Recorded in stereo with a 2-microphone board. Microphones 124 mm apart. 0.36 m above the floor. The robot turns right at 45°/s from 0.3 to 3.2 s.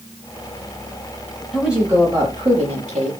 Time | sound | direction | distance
1.5 | a woman speaking | straight behind | 7.5 m